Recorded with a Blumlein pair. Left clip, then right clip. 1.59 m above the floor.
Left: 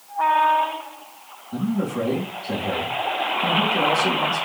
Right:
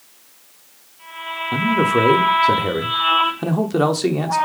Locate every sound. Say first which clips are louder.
1.5 s a man speaking: right 10 dB; 40° right, 0.6 m